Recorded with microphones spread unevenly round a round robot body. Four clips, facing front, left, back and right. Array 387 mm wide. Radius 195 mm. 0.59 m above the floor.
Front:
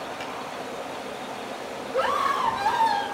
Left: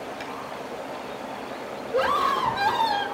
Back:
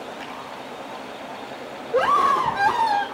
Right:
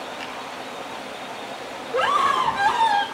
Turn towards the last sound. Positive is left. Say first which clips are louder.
# right 3 dB, back 6 dB
turn(degrees=175)